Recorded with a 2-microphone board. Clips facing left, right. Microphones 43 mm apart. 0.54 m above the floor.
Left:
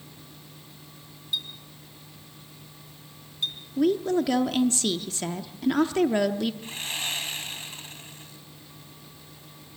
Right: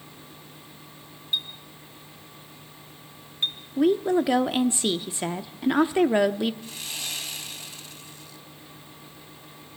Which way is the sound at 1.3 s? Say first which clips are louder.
Right 3 dB; 30° right (ahead or behind).